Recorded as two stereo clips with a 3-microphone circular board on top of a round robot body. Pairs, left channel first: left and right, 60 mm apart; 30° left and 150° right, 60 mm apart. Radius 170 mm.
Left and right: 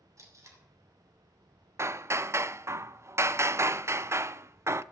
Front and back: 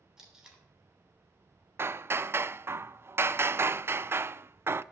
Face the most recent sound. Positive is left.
turn(degrees=-115)